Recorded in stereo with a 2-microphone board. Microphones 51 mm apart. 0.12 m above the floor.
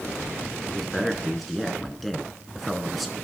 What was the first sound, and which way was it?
A man speaking, centre (ahead or behind).